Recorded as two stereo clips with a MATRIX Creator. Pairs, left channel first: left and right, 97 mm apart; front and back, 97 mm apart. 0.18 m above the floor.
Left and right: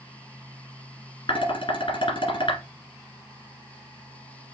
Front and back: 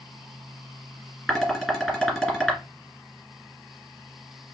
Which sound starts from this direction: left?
Dishes clattering, at 1.3 s.